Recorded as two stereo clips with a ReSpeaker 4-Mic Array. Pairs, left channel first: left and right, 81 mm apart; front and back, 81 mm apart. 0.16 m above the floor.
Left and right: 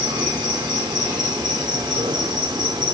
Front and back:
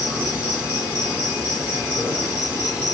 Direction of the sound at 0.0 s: 110° right.